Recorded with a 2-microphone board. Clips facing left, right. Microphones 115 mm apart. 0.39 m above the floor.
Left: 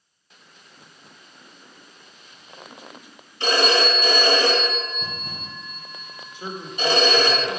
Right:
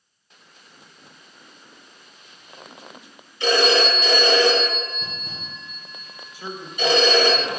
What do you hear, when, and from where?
3.4 s a phone ringing: 50° left (ahead or behind), 2.5 m
6.3 s a man speaking: 25° left (ahead or behind), 1.2 m